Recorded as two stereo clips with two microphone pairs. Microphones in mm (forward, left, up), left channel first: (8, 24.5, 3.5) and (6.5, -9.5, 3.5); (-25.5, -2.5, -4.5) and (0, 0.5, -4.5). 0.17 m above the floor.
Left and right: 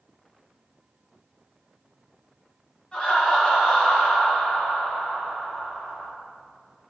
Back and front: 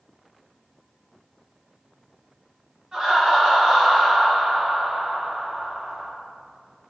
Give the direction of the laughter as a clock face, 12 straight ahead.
10 o'clock.